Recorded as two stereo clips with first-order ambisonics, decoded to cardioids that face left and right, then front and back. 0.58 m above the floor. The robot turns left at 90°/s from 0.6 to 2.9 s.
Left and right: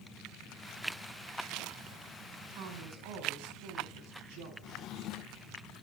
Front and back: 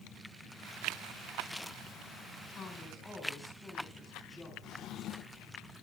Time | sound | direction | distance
2.5 | a woman speaking | 50° right | 5.5 m
4.6 | a drawer | 50° left | 0.6 m